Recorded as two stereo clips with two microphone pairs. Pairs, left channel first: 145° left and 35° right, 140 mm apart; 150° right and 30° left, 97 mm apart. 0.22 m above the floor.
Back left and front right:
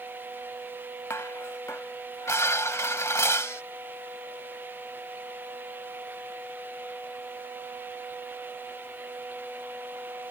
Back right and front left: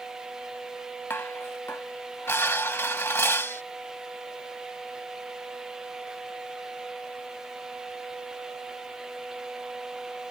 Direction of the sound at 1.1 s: 170° right.